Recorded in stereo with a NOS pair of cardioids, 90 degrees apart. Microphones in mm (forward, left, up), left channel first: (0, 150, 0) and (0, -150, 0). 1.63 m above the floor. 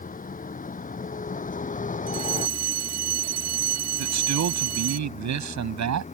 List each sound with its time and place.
0.0 s a vehicle: 25° left
2.1 s a fire alarm: 60° right
4.0 s a man speaking: 65° right